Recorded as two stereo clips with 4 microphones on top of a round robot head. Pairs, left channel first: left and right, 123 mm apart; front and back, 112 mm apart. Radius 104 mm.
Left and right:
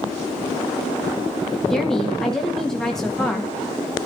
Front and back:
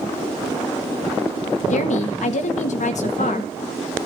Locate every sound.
1.7 s a woman speaking: straight ahead, 1.6 m